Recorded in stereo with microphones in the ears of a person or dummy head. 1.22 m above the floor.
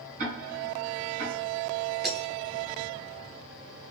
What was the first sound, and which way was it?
Ticking, 45° right (ahead or behind).